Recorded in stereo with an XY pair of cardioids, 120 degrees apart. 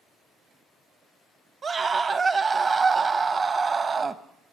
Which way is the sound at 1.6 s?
35° right.